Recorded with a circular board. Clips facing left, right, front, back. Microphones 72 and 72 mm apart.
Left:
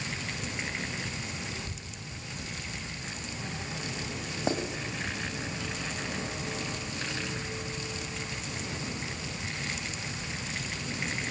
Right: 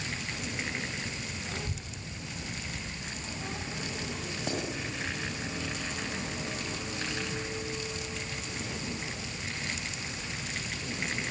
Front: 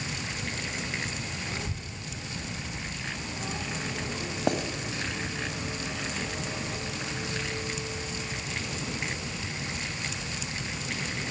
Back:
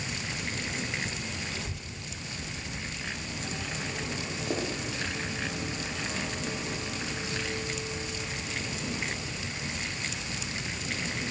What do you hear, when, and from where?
1.5 s a child speaking: 55° right, 1.6 m; by 4.3 s 25° right, 3 m
4.5 s writing: 30° left, 2.5 m